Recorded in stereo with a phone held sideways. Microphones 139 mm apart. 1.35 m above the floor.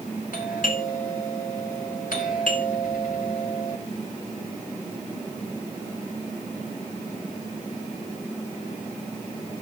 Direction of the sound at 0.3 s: 75° left (ahead or behind).